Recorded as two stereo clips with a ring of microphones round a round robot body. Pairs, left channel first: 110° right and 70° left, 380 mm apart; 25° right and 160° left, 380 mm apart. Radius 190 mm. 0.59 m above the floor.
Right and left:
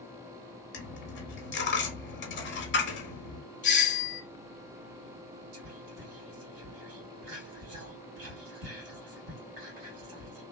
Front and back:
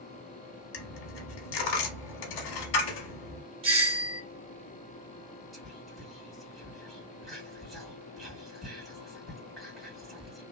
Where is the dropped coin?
50° right, 0.8 m.